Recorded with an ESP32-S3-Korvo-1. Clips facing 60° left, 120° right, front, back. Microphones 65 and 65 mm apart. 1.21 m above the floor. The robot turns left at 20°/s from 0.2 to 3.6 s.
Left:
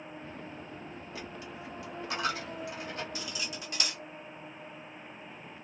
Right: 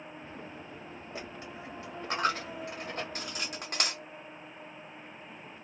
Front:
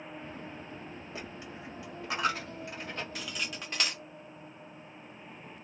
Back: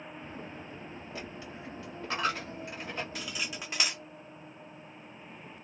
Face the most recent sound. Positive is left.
turn(degrees=-100)